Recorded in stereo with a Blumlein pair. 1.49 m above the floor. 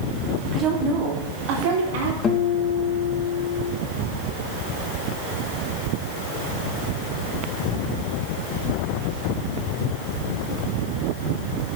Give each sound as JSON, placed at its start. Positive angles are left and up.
{"t": 0.5, "sound": "a woman speaking", "azimuth_deg": -20, "distance_m": 3.0}
{"t": 2.2, "sound": "a guitar", "azimuth_deg": 20, "distance_m": 1.6}